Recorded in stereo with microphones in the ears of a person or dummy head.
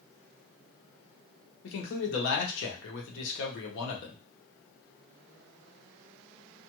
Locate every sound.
1.6 s a man speaking: 65° left (ahead or behind), 0.9 m